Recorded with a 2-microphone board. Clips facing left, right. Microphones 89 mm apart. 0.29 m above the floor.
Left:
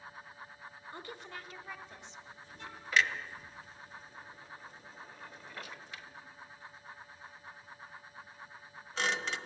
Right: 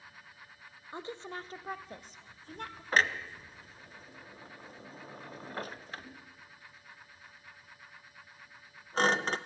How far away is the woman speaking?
About 0.9 m.